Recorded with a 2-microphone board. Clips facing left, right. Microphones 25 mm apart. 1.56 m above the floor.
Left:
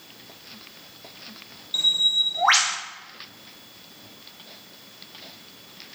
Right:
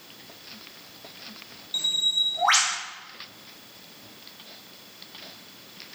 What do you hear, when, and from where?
1.7 s a bird: 15° left (ahead or behind), 0.7 m